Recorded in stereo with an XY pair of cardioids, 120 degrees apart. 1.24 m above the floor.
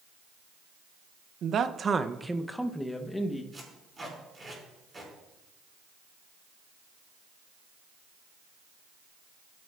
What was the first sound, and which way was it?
A man speaking, 55° right.